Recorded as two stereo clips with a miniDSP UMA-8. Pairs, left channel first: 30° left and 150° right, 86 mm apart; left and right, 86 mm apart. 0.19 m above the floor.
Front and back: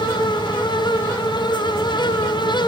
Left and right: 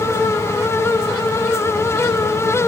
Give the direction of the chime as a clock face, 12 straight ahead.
I don't hear a chime.